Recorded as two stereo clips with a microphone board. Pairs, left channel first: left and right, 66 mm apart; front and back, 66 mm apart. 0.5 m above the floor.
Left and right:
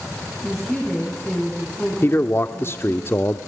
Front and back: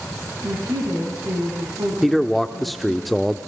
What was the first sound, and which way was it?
A woman speaking, 175° left.